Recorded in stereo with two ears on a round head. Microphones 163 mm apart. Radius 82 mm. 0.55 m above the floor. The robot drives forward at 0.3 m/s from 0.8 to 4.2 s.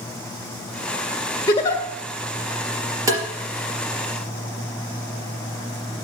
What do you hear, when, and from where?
1.5 s a giggle: 20° left (ahead or behind), 1.7 m
3.1 s tapping: 20° right (ahead or behind), 3.5 m